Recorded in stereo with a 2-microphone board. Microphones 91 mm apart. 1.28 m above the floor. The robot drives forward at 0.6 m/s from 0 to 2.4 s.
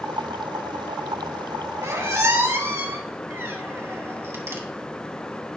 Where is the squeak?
35° right (ahead or behind), 1.8 m; by 4.6 s 30° right (ahead or behind), 2 m.